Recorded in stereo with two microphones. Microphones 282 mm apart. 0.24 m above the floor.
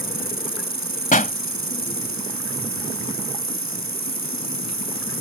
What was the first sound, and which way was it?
An insect, 75° right (ahead or behind).